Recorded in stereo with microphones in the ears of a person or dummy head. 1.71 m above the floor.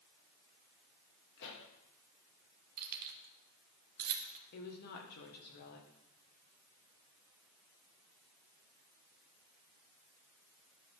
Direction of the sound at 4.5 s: 50° left (ahead or behind).